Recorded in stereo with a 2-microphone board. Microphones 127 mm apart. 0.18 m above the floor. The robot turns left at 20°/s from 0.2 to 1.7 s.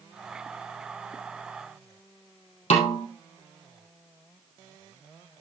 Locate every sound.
2.7 s a snare drum: 70° left (ahead or behind), 3 m